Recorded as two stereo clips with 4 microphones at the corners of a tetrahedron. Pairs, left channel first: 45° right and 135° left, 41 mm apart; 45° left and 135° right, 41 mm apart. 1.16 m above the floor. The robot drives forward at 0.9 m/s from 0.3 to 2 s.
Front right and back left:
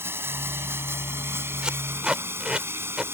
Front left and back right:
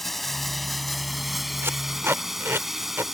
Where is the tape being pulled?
155° right; by 3.0 s 160° right.